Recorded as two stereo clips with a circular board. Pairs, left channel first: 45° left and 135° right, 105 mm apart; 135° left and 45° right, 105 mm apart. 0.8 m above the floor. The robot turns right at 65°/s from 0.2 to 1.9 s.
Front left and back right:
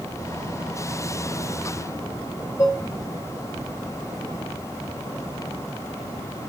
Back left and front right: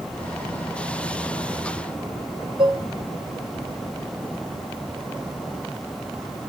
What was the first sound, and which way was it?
Dishes clattering, 20° right.